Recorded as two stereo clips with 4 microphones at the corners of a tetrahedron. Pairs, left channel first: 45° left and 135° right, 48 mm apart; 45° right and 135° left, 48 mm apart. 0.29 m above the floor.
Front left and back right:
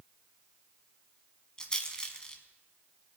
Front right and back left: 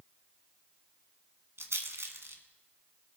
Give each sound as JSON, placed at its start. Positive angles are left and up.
{"t": 1.6, "sound": "a rattle", "azimuth_deg": 115, "distance_m": 1.4}